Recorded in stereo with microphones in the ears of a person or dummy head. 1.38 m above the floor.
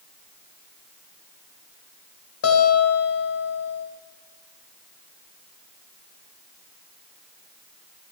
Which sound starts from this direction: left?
A guitar, at 2.4 s.